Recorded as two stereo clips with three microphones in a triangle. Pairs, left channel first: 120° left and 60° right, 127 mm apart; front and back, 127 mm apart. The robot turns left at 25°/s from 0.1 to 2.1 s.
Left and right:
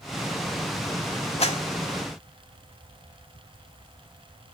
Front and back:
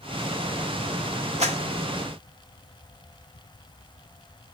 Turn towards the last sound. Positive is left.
turn(degrees=135)